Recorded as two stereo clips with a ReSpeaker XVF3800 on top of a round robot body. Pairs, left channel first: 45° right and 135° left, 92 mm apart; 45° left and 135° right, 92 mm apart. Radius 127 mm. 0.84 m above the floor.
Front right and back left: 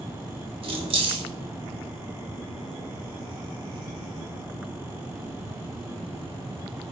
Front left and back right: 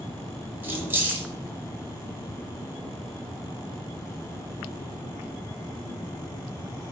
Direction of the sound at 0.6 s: 155° left.